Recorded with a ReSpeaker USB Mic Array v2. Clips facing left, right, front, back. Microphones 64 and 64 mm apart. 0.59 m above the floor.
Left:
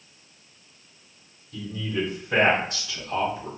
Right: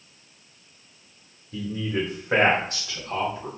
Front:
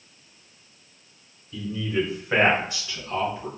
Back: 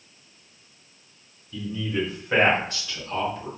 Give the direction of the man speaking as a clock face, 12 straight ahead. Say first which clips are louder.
Right 2 dB, front 2 dB; 3 o'clock.